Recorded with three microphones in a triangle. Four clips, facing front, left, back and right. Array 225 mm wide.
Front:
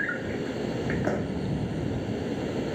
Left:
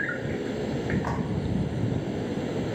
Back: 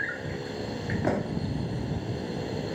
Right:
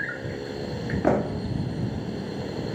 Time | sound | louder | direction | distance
0.0 | an insect | left 3 dB, front 4 dB | 30° left | ?
1.0 | a pop | right 7 dB, even | 95° right | ?